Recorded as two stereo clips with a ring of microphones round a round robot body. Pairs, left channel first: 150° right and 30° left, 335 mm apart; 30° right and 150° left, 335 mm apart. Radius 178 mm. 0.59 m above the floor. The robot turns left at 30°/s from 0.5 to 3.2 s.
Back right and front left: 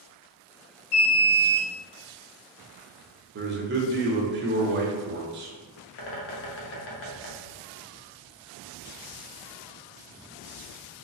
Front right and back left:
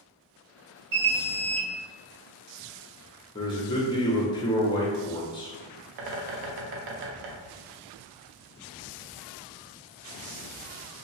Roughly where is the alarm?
Behind.